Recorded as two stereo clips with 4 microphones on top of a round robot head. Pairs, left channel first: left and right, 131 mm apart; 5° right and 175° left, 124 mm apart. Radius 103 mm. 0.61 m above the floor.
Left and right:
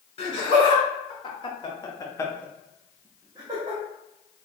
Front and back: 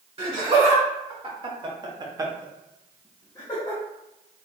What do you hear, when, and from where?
0.2 s laughter: 135° left, 1.8 m; by 3.8 s 45° right, 0.9 m